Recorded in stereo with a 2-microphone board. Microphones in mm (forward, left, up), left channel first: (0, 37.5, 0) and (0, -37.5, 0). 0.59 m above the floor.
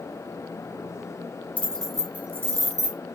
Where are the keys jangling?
20° left (ahead or behind), 0.8 m; by 3.0 s 55° right (ahead or behind), 1.0 m.